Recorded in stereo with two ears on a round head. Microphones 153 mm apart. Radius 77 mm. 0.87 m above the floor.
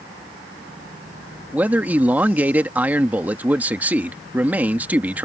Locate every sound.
1.5 s a man speaking: 10° right (ahead or behind)